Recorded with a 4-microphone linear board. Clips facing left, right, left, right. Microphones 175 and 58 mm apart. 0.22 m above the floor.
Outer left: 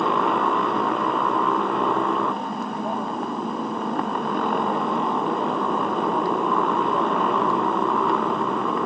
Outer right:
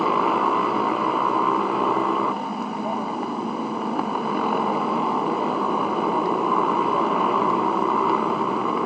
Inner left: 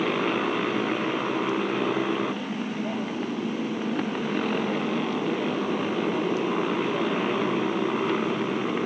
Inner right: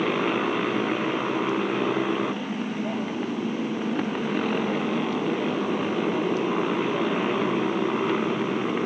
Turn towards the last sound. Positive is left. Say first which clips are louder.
# even, inner right 1 dB
turn(degrees=0)  # may be behind; listen again after turning